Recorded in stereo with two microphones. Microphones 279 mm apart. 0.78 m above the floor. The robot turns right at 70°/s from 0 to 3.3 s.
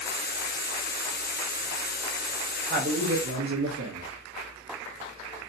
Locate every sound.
2.7 s a man speaking: 140° right, 1.0 m; by 4.1 s 100° right, 1.0 m